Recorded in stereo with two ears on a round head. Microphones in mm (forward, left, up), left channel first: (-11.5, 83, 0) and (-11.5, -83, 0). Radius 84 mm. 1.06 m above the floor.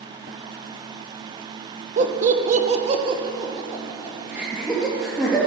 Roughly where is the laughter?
Right.